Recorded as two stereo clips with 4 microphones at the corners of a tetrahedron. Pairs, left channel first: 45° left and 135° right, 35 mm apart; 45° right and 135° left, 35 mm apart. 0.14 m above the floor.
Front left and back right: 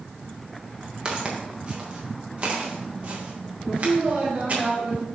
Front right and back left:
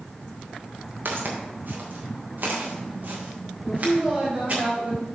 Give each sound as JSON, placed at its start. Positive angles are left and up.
{"t": 1.1, "sound": "footsteps", "azimuth_deg": 165, "distance_m": 3.0}
{"t": 3.6, "sound": "a woman speaking", "azimuth_deg": -145, "distance_m": 4.0}